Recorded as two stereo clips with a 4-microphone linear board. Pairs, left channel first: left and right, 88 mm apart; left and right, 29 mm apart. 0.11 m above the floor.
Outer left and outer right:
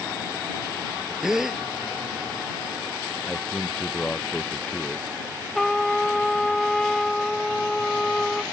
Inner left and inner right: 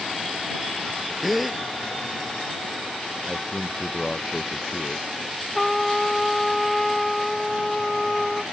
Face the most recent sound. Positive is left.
turn(degrees=5)  # may be behind; listen again after turning